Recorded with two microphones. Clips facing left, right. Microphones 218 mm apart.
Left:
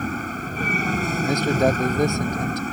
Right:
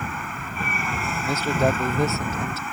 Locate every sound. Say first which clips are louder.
0.0 s an aircraft: left 6 dB; 40° left (ahead or behind)
1.2 s a man speaking: left 2 dB; 15° left (ahead or behind)